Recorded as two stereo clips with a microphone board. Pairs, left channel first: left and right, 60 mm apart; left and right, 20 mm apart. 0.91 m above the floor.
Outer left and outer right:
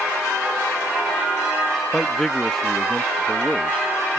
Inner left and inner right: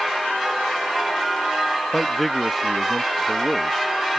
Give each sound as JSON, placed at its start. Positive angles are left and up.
{"t": 1.9, "sound": "a man speaking", "side_deg": 5}